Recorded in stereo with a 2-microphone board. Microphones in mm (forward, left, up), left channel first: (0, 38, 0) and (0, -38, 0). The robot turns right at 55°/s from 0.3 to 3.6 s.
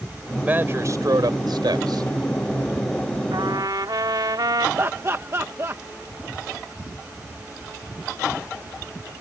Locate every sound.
0.3 s a man speaking: 165° right; by 2.1 s 70° right
3.3 s a trumpet: 85° right; by 4.7 s 70° right (ahead or behind)
4.8 s laughter: 40° right (ahead or behind)